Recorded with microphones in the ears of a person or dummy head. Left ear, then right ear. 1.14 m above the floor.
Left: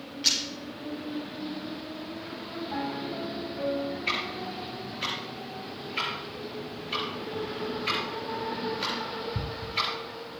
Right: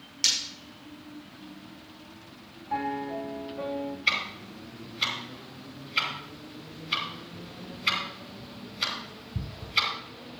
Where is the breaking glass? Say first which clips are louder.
Even; 55° right (ahead or behind), 6.5 m.